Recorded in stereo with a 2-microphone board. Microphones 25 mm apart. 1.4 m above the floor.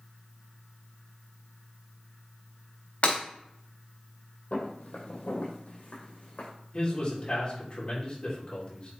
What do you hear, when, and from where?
3.0 s breaking glass: 50° left (ahead or behind), 4 m
4.5 s footsteps: 60° left (ahead or behind), 3 m
6.7 s a man speaking: 40° left (ahead or behind), 3 m